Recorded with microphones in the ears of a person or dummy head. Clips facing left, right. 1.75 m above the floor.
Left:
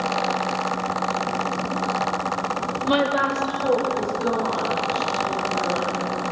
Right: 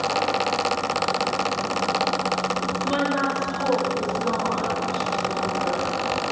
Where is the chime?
No chime in this recording.